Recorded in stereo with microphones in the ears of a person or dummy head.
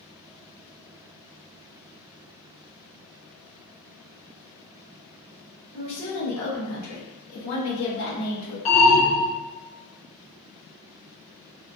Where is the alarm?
40° left (ahead or behind), 1.2 m.